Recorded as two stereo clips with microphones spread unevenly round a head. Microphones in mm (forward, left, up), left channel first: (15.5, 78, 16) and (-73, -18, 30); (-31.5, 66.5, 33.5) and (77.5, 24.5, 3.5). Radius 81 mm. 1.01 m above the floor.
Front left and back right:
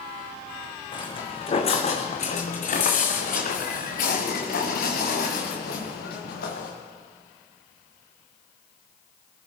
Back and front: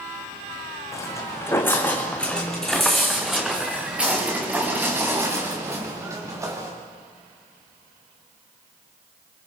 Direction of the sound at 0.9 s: 105° left.